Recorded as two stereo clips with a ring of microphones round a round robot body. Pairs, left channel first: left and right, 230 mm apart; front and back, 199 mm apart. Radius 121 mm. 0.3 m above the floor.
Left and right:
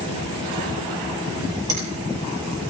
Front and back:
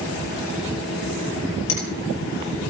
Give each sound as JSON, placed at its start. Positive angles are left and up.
{"t": 1.7, "sound": "a finger snap", "azimuth_deg": -15, "distance_m": 6.5}